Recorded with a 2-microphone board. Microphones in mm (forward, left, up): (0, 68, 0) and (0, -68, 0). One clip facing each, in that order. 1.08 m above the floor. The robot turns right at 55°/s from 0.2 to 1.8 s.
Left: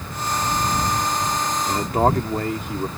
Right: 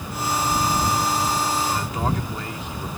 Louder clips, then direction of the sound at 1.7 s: Left 6 dB; 55° left (ahead or behind).